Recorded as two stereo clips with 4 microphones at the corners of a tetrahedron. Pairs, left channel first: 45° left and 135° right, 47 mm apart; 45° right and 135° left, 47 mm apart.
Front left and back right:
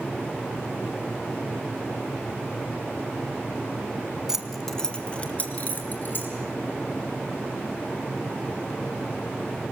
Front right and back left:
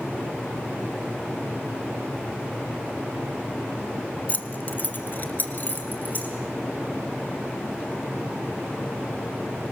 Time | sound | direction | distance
4.3 | keys jangling | 65° right | 1.2 m